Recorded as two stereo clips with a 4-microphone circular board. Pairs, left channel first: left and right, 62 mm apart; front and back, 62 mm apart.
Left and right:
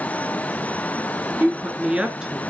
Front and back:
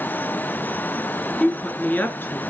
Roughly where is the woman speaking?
Ahead right.